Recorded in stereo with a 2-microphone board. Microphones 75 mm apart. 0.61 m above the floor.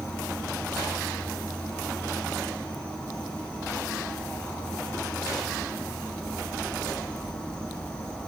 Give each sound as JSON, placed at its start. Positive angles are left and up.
{"t": 0.0, "sound": "an insect", "side_deg": 20, "distance_m": 1.0}